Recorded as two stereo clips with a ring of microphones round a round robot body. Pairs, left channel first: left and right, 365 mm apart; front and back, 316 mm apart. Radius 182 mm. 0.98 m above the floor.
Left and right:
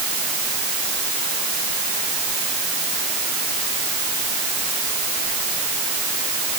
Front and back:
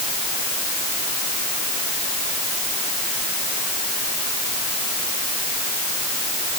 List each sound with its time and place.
Only background noise.